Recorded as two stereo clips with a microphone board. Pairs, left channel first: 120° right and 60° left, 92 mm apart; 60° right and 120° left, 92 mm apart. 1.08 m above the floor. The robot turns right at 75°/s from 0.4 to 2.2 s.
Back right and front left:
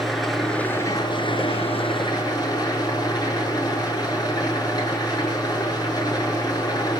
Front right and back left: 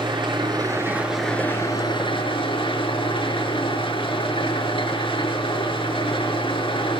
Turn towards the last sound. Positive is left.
turn(degrees=-75)